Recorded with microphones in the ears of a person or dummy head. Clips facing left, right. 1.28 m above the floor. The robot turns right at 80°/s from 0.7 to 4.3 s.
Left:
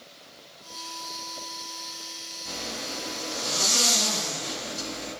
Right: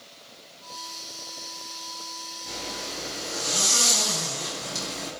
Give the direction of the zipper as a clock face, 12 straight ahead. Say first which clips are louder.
Left 1 dB; 8 o'clock.